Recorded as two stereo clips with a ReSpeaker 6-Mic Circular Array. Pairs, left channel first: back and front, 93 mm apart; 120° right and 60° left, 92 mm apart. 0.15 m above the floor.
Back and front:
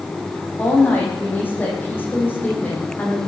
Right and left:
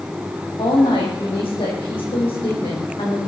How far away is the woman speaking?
About 6 m.